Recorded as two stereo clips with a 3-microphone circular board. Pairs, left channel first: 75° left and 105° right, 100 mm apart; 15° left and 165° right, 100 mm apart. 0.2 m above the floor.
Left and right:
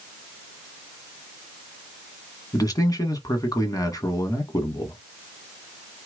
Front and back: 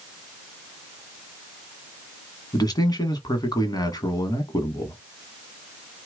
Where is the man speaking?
40° left, 1.4 m.